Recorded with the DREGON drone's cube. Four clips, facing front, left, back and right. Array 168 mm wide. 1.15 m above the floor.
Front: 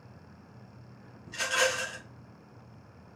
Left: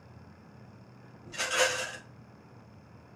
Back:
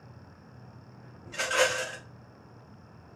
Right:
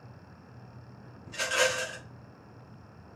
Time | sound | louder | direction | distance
1.3 | a rattle | right 1 dB, back 2 dB | 175° left | 2.5 m